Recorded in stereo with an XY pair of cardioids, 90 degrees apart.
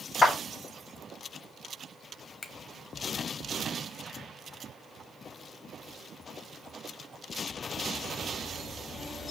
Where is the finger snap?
35° left, 0.9 m.